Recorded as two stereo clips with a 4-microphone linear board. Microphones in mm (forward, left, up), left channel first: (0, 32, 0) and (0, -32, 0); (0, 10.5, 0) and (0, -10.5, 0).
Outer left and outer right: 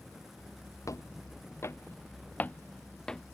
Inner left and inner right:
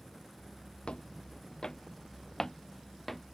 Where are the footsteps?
50° left (ahead or behind); by 3.2 s 5° left (ahead or behind).